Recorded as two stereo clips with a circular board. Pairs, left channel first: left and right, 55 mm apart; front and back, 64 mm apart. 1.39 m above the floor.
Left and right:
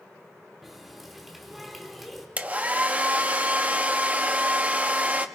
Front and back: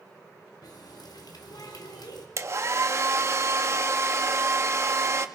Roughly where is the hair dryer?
Behind right.